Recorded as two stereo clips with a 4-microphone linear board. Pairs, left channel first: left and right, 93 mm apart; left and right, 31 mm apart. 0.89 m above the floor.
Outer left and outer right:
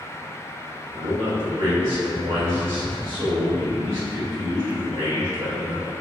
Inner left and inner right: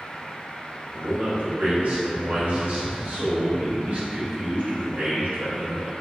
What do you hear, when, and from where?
0.9 s a man speaking: 80° right, 1.6 m